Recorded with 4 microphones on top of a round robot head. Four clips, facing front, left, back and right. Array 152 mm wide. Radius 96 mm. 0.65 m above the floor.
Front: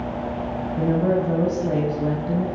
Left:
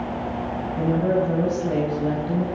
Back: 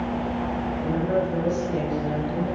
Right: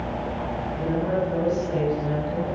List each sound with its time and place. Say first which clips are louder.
0.8 s a woman speaking: left 4 dB, front 5 dB; 25° left, 5.5 m